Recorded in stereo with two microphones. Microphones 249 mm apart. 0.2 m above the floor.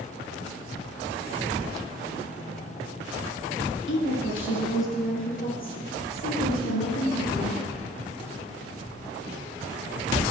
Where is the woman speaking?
50° left (ahead or behind), 1.6 m; by 7.5 s 55° left (ahead or behind), 4 m.